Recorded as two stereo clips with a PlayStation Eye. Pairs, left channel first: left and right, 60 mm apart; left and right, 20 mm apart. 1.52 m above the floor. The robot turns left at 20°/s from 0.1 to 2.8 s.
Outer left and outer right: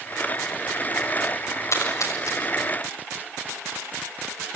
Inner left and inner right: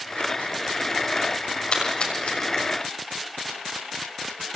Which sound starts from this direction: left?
A splash, at 1.7 s.